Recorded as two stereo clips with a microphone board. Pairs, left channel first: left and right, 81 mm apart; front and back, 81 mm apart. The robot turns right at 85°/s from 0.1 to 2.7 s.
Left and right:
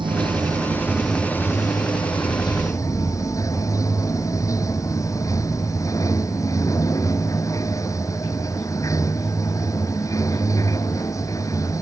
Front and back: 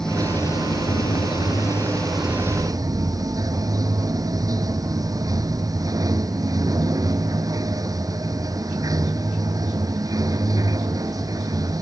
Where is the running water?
80° right; by 11.8 s 140° left.